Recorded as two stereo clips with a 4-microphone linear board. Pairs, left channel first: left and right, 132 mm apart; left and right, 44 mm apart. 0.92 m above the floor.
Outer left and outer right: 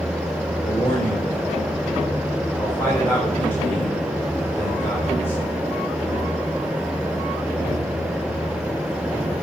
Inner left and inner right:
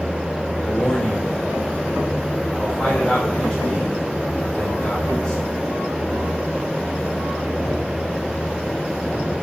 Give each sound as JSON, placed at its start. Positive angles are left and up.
{"t": 0.6, "sound": "a man speaking", "side_deg": 15, "distance_m": 3.0}